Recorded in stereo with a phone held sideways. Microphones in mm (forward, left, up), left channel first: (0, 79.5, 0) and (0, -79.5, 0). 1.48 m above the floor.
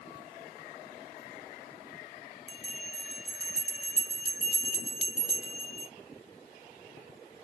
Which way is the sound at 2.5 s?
40° right (ahead or behind).